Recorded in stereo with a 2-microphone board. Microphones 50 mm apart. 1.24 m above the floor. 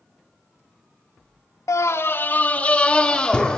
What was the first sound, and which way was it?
A scream, 75° left (ahead or behind).